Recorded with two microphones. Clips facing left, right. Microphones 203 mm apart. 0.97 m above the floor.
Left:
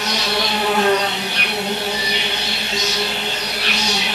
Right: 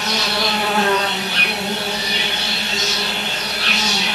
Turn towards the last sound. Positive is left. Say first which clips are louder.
# even
turn(degrees=20)  # may be behind; listen again after turning